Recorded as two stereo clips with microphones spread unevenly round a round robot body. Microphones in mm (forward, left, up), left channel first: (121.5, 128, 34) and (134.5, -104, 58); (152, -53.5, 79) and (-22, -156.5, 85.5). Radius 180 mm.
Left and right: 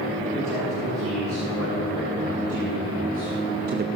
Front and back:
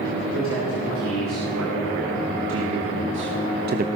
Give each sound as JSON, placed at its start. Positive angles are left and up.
{"t": 0.2, "sound": "a man speaking", "azimuth_deg": -160, "distance_m": 4.0}